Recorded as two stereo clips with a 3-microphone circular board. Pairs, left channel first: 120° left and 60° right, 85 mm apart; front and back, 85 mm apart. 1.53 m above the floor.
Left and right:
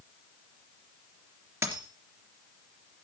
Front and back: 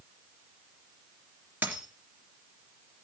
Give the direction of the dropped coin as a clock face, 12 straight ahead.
4 o'clock.